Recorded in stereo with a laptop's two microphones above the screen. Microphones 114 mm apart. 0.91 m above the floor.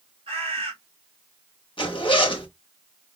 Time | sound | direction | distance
0.3 | a bird | 55° right (ahead or behind) | 1.8 m
1.8 | a zipper | 45° left (ahead or behind) | 0.9 m